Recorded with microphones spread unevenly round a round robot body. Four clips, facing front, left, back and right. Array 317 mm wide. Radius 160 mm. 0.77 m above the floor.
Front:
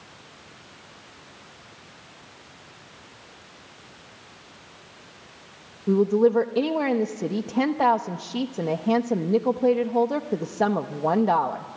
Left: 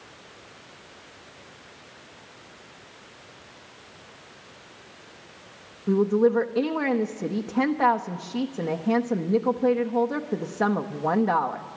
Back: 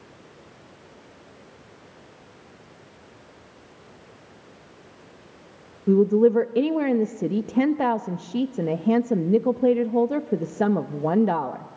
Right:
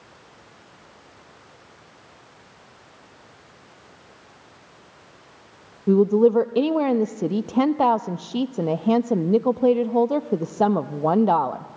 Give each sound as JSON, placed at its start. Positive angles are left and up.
{"t": 5.9, "sound": "a woman speaking", "azimuth_deg": -150, "distance_m": 0.8}